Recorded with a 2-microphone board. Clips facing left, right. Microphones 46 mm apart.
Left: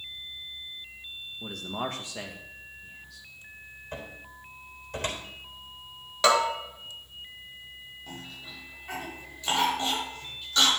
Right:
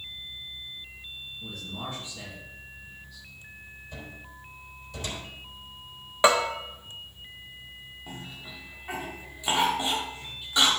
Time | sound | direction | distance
1.4 | a man speaking | 70° left (ahead or behind) | 2 m
3.9 | a cupboard door | 50° left (ahead or behind) | 3.5 m
6.2 | a bell | 20° right (ahead or behind) | 1.6 m
8.1 | a cough | 15° right (ahead or behind) | 4 m